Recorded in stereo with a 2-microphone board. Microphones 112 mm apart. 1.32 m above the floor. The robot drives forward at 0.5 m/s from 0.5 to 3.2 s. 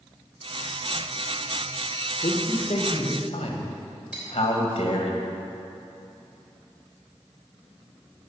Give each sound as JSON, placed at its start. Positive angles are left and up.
{"t": 2.2, "sound": "a man speaking", "side_deg": 75, "distance_m": 1.3}
{"t": 4.1, "sound": "cutlery clinking", "side_deg": -10, "distance_m": 3.0}